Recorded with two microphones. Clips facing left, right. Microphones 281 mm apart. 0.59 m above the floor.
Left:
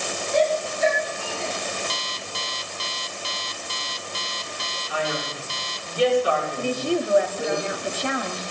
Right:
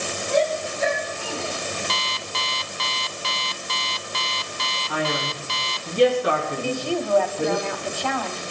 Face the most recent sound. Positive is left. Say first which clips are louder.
# left 1 dB
turn(degrees=20)  # may be behind; listen again after turning